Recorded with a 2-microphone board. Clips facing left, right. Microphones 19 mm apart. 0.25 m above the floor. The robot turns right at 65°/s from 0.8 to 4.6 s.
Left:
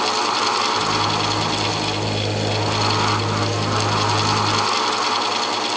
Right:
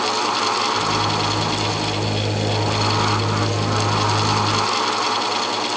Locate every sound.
Only background noise.